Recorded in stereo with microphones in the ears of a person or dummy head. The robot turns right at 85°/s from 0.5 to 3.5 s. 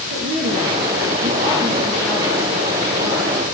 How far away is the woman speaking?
About 4 m.